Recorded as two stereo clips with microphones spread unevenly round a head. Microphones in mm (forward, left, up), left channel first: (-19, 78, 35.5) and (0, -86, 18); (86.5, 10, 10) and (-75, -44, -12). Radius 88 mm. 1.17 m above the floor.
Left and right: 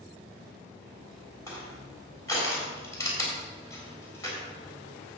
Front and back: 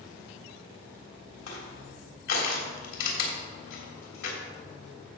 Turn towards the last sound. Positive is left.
turn(degrees=25)